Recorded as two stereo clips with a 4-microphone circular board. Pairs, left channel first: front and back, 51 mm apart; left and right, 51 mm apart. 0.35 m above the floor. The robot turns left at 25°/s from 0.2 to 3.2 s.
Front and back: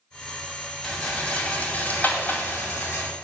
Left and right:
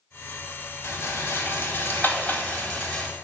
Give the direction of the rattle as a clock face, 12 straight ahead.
9 o'clock.